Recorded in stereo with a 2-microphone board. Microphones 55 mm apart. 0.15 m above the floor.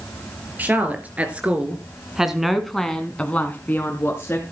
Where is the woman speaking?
30° right (ahead or behind), 3.5 m; by 4.4 s 45° left (ahead or behind), 2.5 m.